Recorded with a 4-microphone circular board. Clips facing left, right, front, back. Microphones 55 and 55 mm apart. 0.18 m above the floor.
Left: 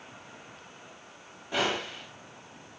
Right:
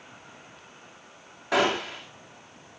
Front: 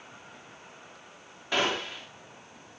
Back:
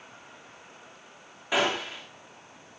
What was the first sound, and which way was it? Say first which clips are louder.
A gunshot: right 5 dB, back 2 dB; 100° right.